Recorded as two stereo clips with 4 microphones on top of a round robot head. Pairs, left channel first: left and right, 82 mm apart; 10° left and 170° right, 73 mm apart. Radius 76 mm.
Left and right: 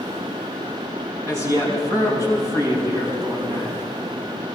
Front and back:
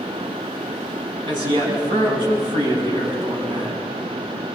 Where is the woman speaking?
150° right, 6 m.